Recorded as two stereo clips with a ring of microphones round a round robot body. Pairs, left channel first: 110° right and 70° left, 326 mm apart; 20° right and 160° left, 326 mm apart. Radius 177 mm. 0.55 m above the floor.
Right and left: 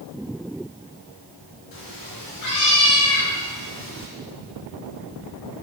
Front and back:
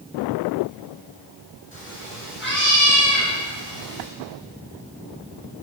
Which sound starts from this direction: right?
A cat meowing, at 1.7 s.